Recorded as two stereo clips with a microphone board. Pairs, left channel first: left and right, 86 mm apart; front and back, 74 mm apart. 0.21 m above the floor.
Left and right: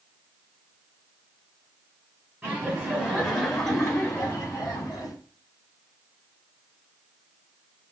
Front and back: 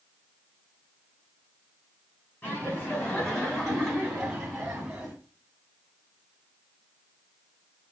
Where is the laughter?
40° right, 1.7 m; by 5.2 s 120° left, 1.8 m.